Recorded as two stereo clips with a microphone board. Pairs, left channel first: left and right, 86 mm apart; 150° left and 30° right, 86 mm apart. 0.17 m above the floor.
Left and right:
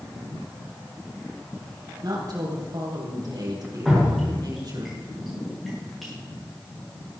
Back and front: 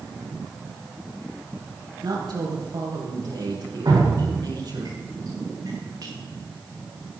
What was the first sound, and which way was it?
A woman speaking, 55° right.